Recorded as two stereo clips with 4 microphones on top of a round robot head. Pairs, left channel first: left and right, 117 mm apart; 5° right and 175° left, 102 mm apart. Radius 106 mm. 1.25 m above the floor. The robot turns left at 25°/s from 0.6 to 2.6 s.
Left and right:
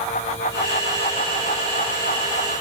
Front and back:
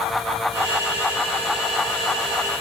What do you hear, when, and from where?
Only background noise.